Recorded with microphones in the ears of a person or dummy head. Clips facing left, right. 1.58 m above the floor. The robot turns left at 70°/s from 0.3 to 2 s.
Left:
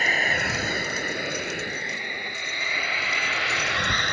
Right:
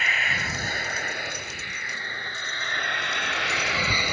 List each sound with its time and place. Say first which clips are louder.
0.0 s a vehicle: left 5 dB; 30° left (ahead or behind); by 4.2 s 10° right (ahead or behind)